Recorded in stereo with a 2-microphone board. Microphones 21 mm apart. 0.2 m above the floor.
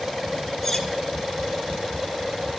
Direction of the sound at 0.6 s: 10° left (ahead or behind).